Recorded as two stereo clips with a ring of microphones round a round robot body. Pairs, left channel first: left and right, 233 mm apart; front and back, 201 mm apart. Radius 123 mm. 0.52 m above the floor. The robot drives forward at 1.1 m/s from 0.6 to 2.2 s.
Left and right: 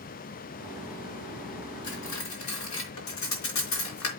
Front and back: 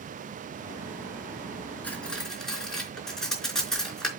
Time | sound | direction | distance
1.8 | cutlery clinking | 80° left | 4 m